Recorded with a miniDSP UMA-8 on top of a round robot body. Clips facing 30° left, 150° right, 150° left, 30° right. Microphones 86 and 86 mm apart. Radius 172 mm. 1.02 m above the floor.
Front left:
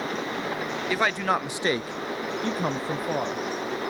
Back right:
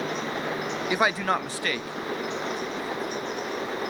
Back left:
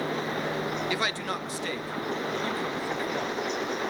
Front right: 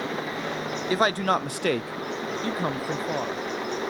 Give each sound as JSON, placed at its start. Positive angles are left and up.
{"t": 0.9, "sound": "a man speaking", "azimuth_deg": -75, "distance_m": 0.7}